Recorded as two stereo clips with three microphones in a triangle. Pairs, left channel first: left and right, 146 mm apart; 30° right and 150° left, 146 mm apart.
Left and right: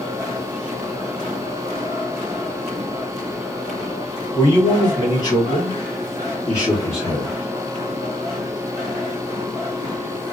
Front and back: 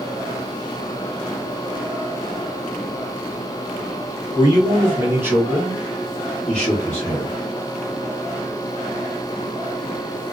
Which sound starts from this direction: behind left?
A man speaking, at 4.3 s.